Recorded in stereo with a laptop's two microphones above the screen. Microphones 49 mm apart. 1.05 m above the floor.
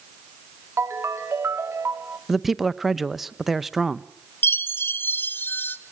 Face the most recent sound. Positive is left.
turn(degrees=45)  # may be behind; listen again after turning